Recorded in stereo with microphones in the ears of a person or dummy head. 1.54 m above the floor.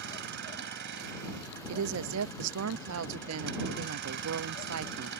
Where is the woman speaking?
70° right (ahead or behind).